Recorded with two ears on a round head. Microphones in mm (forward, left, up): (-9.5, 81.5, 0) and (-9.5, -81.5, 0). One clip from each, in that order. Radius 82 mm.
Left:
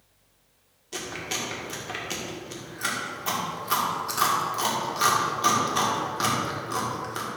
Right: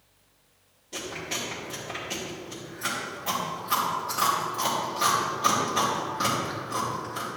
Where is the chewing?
30° left (ahead or behind), 2.5 m.